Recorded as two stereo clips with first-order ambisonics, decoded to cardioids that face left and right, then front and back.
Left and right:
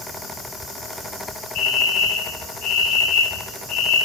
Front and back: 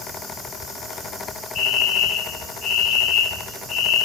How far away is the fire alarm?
About 4.5 m.